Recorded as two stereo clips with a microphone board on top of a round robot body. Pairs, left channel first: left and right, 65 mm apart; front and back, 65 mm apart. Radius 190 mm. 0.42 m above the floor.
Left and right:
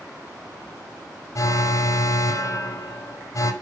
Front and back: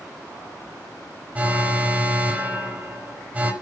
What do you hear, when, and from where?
1.4 s an alarm: 110° left, 2.5 m